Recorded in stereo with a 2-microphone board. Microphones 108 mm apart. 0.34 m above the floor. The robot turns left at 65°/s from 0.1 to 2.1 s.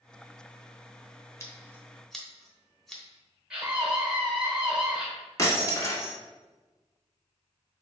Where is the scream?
10° right (ahead or behind), 1.0 m.